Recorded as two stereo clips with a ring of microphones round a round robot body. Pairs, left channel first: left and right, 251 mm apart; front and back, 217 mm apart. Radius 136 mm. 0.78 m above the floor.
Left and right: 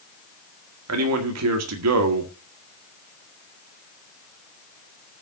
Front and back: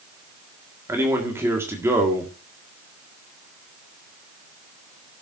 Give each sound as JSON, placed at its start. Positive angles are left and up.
{"t": 0.9, "sound": "a man speaking", "azimuth_deg": -100, "distance_m": 1.8}